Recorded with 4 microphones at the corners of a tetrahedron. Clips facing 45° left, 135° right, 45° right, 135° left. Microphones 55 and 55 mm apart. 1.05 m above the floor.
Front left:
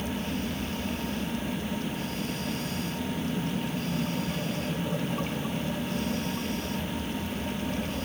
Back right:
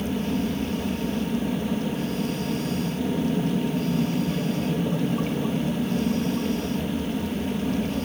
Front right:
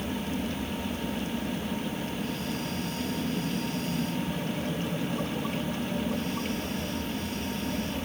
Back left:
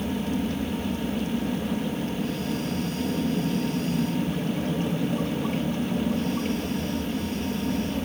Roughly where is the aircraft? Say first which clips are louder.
Back right 6 dB, back left 4 dB; behind.